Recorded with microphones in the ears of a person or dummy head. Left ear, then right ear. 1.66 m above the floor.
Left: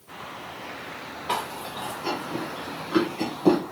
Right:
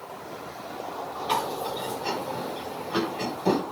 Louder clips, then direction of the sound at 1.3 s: Right 2 dB; 15° left (ahead or behind).